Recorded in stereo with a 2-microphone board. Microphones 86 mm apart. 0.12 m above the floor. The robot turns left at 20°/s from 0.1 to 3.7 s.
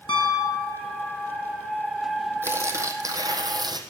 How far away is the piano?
About 3 m.